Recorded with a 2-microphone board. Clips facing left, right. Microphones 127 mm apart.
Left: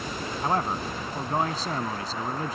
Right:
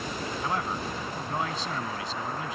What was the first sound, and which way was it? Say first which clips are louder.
A man speaking: left 6 dB; 40° left (ahead or behind).